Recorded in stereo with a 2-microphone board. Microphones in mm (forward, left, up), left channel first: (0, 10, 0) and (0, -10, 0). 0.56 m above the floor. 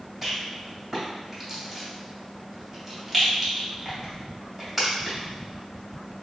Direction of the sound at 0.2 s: 10° right (ahead or behind).